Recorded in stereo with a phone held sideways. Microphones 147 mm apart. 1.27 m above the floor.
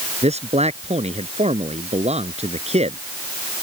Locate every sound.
0.2 s a man speaking: 45° right (ahead or behind)